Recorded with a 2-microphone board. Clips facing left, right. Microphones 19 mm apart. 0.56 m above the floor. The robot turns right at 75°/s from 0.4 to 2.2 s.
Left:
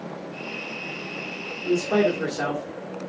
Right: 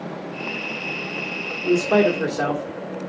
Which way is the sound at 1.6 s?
40° right (ahead or behind).